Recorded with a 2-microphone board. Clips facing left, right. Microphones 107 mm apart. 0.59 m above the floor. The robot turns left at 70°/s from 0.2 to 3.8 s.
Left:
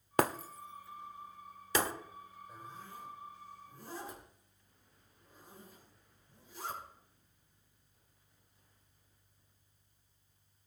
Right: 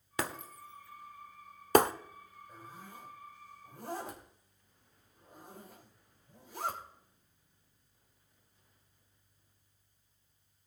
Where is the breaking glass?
50° left (ahead or behind), 0.9 m; by 1.9 s 65° right (ahead or behind), 0.9 m.